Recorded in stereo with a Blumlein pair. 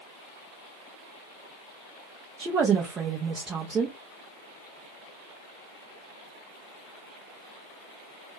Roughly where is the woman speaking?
Ahead.